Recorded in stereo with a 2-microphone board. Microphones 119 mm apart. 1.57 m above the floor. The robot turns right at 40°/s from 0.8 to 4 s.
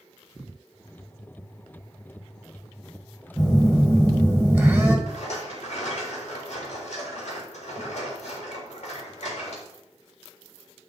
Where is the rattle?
65° left (ahead or behind), 3 m.